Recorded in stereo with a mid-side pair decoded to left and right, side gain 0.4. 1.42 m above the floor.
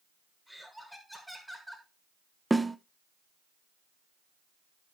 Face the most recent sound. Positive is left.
turn(degrees=-15)